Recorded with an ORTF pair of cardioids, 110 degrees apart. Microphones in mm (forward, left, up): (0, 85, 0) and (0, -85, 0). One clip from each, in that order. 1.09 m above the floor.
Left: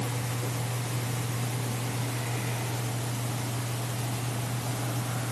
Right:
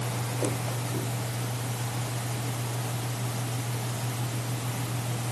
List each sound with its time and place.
Only background noise.